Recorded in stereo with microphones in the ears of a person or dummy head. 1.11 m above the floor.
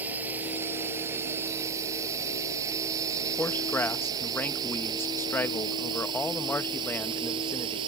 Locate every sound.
0.0 s a drone: 10° right (ahead or behind); by 7.9 s 25° right (ahead or behind)
3.4 s a man speaking: 10° left (ahead or behind)